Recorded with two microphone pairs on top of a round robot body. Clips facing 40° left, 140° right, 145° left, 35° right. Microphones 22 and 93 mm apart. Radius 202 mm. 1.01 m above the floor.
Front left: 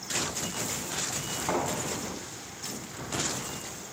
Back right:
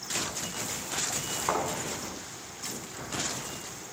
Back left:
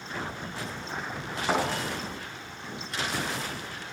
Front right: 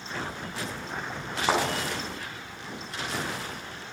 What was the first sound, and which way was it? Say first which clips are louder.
A thud: even, front right 2 dB; 70° right.